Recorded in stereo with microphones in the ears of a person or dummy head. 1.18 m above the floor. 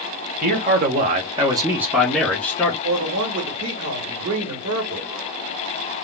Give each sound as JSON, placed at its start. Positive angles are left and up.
{"t": 0.4, "sound": "a man speaking", "side_deg": -40, "distance_m": 1.0}
{"t": 2.8, "sound": "a man speaking", "side_deg": -75, "distance_m": 1.3}